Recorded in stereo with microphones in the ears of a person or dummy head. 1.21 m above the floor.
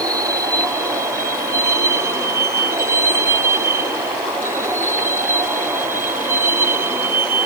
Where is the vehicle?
15° right (ahead or behind); by 7.5 s 10° right (ahead or behind).